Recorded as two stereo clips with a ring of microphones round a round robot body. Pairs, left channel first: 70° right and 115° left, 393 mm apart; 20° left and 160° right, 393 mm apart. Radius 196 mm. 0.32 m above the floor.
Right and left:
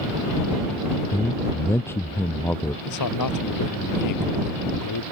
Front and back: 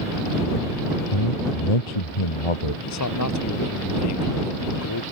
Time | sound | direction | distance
1.1 | a man speaking | 15° left | ?
2.9 | a man speaking | 25° right | ?